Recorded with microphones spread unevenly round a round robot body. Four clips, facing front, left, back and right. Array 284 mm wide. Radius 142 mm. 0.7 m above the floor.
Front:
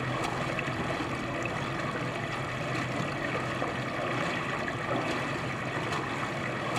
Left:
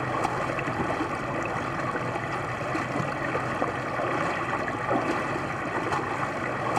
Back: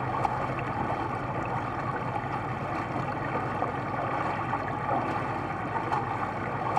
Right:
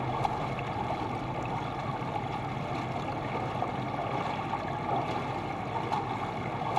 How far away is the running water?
About 0.8 m.